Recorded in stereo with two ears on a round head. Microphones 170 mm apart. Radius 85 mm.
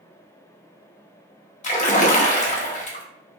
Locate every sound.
1.6 s a splash: 40° left (ahead or behind), 0.6 m